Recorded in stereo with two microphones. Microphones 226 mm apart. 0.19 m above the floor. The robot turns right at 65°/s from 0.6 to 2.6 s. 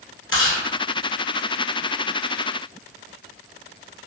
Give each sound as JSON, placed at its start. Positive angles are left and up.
{"t": 0.3, "sound": "chewing", "side_deg": 65, "distance_m": 1.1}